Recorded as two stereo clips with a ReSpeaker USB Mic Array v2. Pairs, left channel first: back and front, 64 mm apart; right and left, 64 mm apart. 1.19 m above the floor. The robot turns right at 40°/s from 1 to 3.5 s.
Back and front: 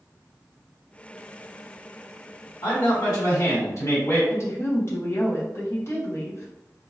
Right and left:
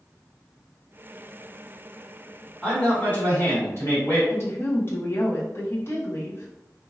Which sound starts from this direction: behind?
A man speaking, at 2.6 s.